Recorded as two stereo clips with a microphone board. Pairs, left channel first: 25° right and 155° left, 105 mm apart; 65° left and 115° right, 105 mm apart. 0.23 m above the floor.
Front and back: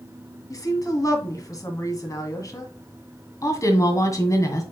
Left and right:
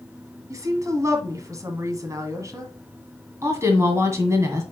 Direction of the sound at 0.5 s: 65° right.